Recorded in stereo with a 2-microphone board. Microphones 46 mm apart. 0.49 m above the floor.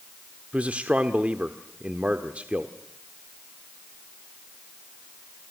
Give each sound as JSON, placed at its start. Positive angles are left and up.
{"t": 0.5, "sound": "a man speaking", "side_deg": -25, "distance_m": 1.2}